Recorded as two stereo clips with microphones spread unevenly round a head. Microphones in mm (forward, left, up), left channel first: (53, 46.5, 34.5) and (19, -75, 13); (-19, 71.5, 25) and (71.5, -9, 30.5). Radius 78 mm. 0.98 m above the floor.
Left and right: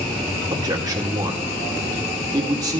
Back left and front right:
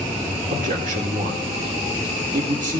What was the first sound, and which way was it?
A man speaking, 50° right.